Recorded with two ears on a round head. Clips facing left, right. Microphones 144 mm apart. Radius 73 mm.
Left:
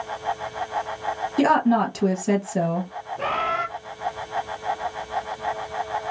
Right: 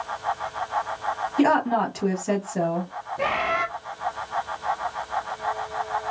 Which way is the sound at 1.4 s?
40° left (ahead or behind).